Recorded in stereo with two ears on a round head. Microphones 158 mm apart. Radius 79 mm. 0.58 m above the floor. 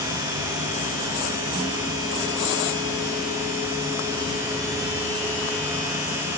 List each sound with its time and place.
Only background noise.